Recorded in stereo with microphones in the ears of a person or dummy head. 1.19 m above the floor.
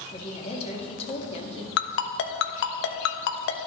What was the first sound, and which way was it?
A woman speaking, 35° left (ahead or behind).